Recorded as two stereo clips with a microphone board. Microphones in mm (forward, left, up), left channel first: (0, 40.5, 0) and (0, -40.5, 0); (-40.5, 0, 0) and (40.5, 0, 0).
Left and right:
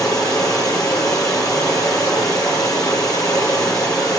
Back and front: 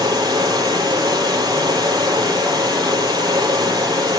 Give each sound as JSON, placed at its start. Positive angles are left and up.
{"t": 0.0, "sound": "running water", "azimuth_deg": 45, "distance_m": 9.5}